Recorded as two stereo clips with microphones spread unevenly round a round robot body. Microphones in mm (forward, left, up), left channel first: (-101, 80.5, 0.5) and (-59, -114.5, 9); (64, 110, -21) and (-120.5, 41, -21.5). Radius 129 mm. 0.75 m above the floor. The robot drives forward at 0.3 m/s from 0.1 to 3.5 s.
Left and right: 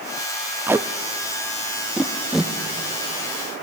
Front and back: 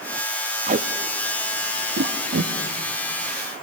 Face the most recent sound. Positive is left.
turn(degrees=-170)